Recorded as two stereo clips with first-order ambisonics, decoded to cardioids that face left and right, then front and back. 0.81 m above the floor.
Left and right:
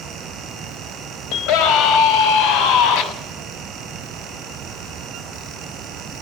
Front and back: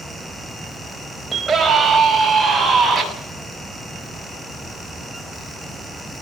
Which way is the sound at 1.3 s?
100° left.